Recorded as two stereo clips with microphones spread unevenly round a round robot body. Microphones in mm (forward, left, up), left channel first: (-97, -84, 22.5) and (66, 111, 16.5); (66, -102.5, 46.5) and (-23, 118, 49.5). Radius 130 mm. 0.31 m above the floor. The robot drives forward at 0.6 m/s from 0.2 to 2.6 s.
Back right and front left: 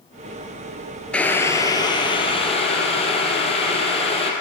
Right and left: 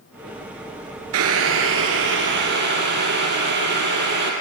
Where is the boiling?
145° left, 0.9 m; by 4.3 s 160° left, 1.7 m.